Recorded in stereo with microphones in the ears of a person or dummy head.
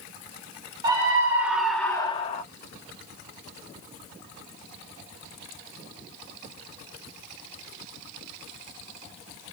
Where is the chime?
I don't hear a chime.